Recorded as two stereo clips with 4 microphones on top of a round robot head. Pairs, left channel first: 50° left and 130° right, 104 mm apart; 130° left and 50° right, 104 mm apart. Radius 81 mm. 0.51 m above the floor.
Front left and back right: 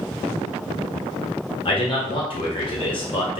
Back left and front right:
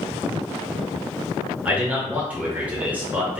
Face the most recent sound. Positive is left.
turn(degrees=25)